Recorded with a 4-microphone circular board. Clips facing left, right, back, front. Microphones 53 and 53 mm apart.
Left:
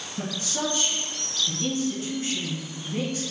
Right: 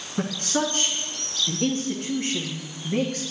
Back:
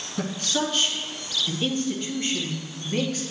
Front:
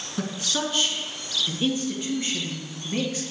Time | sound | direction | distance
0.2 | a man speaking | 85° right | 2.5 m